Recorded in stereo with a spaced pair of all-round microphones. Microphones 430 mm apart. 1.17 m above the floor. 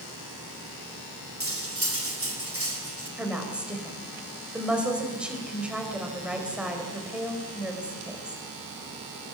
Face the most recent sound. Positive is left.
turn(degrees=-5)  # may be behind; listen again after turning